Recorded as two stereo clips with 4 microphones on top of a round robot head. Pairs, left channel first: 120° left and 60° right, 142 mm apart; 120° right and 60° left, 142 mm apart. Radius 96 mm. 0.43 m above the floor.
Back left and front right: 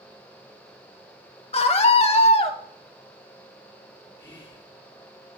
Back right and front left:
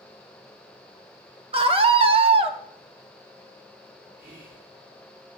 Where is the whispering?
65° left, 5 m.